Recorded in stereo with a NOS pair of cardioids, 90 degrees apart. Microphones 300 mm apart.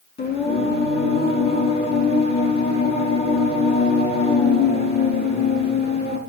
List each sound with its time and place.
0.2 s singing: 35° left, 5.5 m